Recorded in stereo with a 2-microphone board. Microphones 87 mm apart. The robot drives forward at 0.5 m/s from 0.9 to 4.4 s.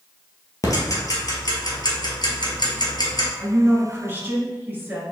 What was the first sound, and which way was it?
Ticking, 40° left (ahead or behind).